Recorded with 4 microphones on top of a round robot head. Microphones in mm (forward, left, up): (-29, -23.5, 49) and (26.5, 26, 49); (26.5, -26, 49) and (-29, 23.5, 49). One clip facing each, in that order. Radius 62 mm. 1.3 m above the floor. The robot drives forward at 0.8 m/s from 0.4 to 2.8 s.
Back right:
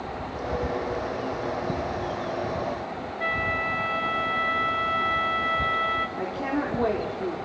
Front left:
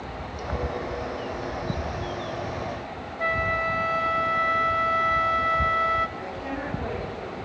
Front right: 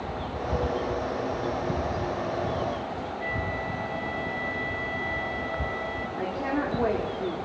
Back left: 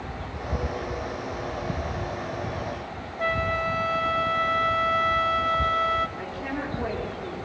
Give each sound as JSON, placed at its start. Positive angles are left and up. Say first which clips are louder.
{"t": 3.2, "sound": "a flute", "louder": "front left 3 dB, back left 9 dB", "azimuth_deg": 115, "distance_m": 0.8}
{"t": 6.2, "sound": "a woman speaking", "louder": "back right 4 dB, front right 4 dB", "azimuth_deg": -95, "distance_m": 3.5}